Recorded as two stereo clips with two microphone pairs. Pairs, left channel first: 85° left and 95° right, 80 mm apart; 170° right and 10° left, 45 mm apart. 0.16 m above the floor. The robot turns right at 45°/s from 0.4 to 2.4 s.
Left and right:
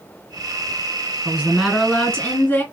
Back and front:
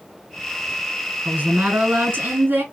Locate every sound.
1.2 s a woman speaking: 25° right, 1.6 m; by 2.6 s 30° left, 1.6 m